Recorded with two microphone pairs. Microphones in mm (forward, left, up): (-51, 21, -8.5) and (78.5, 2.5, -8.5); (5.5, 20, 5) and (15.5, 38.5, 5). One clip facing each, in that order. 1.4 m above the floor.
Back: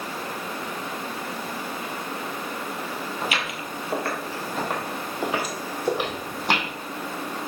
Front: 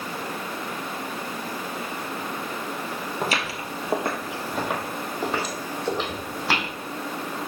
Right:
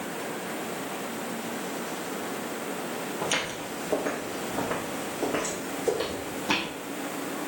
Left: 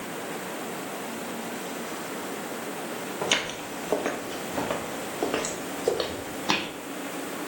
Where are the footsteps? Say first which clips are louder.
Front 3 dB, left 3 dB; 20° left, 2.0 m; by 6.7 s 105° left, 3.5 m.